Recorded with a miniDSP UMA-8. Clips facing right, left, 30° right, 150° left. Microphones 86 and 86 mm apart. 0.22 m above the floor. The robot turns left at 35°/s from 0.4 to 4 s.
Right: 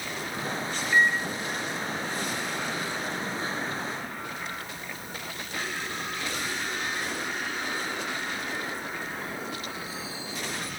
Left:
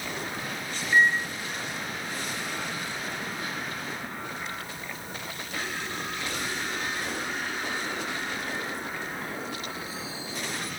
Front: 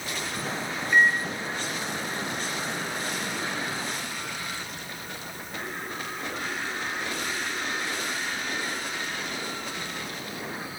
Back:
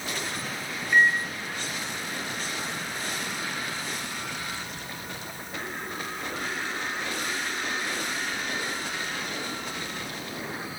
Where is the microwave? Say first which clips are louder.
Left 1 dB, even; 55° left, 0.8 m; by 1.3 s 40° left, 0.8 m.